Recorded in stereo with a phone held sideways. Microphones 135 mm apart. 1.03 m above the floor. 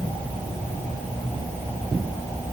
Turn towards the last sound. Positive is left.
No sound to turn to.